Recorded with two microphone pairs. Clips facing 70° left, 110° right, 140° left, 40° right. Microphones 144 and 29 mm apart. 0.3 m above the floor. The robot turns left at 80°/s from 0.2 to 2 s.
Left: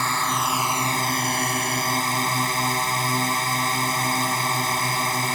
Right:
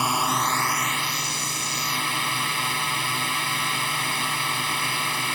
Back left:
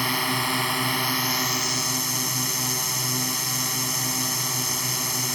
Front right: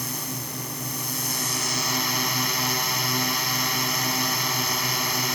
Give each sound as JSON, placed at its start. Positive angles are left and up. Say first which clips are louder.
{"t": 0.0, "sound": "a drone", "louder": "right 1 dB, back left 9 dB", "azimuth_deg": 175}